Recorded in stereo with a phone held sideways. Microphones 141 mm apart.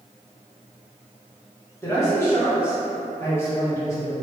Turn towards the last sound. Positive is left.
turn(degrees=15)  # may be behind; listen again after turning